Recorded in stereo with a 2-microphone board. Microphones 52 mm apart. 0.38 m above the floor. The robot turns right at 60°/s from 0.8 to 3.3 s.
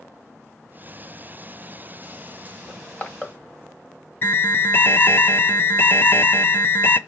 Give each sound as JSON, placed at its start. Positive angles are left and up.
{"t": 2.7, "sound": "crushing", "side_deg": 45, "distance_m": 1.9}
{"t": 4.2, "sound": "an alarm", "side_deg": 45, "distance_m": 0.7}